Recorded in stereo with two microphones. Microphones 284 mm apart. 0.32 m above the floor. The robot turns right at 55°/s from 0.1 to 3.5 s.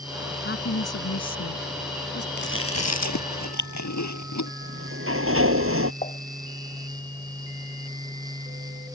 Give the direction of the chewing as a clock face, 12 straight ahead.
11 o'clock.